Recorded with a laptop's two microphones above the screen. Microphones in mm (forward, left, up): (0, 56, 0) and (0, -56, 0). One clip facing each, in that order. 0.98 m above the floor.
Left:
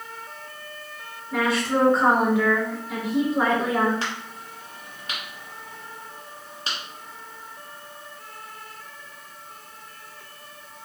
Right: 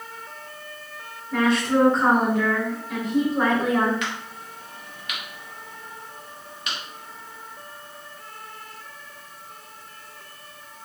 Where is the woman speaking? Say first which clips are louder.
Right 3 dB; 10° left (ahead or behind), 1.7 m.